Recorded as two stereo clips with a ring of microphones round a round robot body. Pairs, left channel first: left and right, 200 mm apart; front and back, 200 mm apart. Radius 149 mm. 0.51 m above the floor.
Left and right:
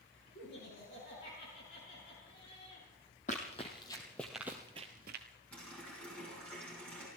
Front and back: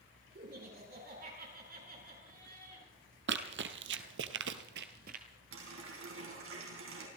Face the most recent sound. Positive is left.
turn(degrees=175)